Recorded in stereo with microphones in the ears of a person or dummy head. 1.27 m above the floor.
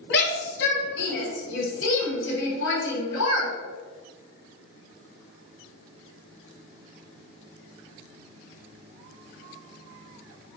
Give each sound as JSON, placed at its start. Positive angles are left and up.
{"t": 0.1, "sound": "a shout", "side_deg": 60, "distance_m": 2.5}